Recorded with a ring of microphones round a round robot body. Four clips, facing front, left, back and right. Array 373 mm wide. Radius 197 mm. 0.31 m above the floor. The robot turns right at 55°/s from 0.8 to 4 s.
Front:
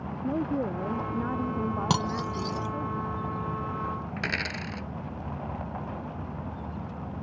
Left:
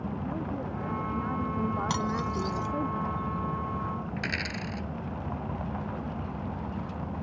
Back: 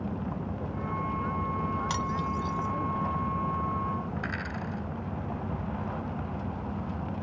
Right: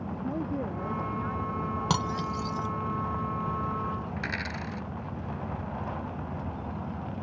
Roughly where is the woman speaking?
Ahead.